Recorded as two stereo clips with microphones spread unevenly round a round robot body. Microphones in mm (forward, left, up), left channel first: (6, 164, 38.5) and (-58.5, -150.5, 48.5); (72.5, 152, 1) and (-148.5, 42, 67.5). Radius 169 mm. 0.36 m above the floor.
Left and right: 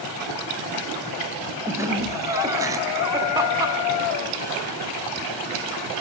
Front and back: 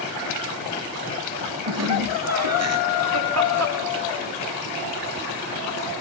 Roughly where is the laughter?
Behind.